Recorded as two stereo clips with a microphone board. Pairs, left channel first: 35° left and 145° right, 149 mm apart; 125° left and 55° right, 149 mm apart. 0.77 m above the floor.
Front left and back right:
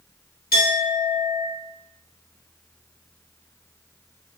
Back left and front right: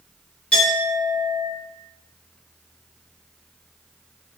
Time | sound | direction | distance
0.5 | a clink | 45° left | 2.0 m